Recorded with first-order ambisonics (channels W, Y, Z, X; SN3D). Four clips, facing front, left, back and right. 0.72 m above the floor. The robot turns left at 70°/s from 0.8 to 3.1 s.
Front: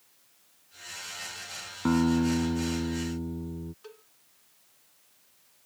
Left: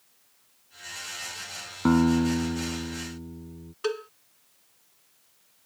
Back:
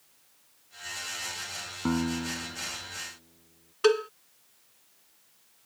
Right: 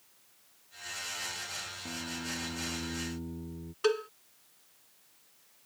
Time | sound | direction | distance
1.9 | a guitar | 85° left | ?
3.8 | a cowbell | 175° right | ?